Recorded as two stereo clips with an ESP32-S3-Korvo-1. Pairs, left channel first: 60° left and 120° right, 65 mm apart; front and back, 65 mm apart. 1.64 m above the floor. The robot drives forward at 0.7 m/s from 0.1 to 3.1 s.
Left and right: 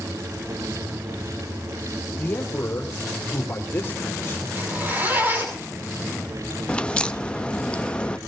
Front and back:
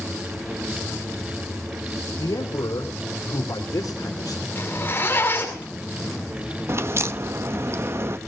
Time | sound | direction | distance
2.2 | a man speaking | 10° left | 3.5 m
4.5 | a zipper | 60° right | 7 m
6.7 | a crack | 135° left | 0.5 m